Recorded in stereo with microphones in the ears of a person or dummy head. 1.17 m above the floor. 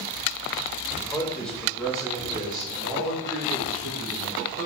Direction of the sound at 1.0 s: 10° left (ahead or behind).